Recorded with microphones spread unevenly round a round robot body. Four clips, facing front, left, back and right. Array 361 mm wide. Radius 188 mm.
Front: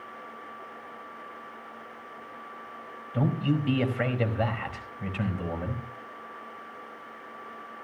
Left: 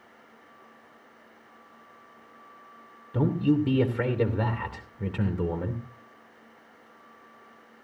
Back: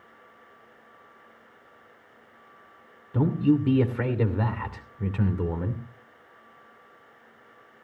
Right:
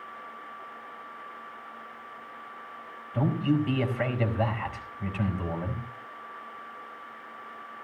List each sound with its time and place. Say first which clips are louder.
3.1 s a man speaking: left 2 dB, back 5 dB; 150° left, 3 m